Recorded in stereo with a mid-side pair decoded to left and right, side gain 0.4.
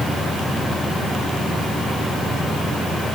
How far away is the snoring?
I don't hear snoring.